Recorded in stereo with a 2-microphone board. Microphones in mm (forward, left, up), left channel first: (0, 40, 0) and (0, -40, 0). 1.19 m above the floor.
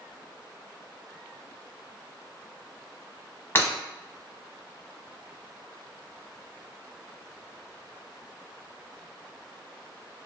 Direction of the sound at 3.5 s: 25° left (ahead or behind).